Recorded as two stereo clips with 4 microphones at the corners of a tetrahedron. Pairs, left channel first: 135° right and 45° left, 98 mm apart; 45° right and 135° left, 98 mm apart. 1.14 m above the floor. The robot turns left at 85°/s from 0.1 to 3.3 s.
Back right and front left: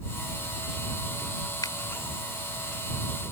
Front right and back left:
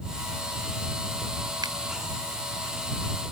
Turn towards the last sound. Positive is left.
turn(degrees=40)